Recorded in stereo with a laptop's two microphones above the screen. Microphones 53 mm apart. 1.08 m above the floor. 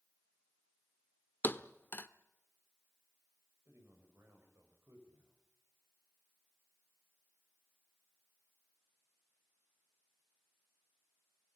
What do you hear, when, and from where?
1.4 s a thud: 40° left (ahead or behind), 0.8 m
3.7 s a man speaking: 60° right (ahead or behind), 6 m